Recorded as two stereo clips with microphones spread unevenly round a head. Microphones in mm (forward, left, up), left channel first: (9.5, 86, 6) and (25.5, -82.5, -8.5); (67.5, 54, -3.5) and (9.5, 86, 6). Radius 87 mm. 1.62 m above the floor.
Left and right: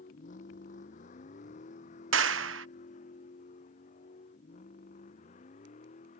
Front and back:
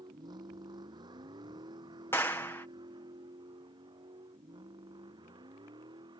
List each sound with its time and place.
0.0 s a vehicle: 145° left; by 6.2 s 150° left
2.1 s a clap: 105° right